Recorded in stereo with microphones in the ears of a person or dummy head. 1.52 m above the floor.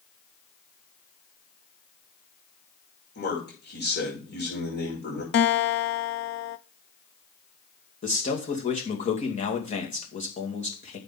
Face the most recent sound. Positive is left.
turn(degrees=40)  # may be behind; listen again after turning